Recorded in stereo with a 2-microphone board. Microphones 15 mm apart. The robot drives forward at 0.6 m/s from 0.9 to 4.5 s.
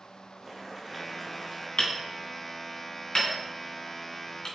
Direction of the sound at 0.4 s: 5° right (ahead or behind).